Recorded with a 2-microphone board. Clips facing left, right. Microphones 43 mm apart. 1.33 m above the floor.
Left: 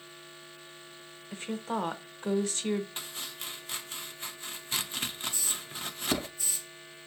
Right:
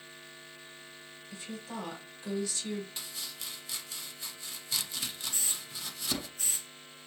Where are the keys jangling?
No keys jangling in this recording.